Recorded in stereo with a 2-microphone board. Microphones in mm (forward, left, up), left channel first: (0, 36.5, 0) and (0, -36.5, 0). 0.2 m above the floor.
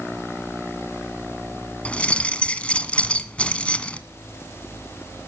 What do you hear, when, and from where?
1.9 s keys jangling: 15° left (ahead or behind), 1.4 m